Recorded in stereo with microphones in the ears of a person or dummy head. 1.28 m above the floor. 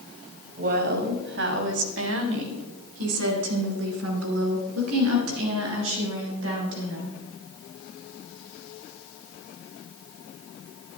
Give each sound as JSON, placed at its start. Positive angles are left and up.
{"t": 0.6, "sound": "a woman speaking", "side_deg": -45, "distance_m": 2.5}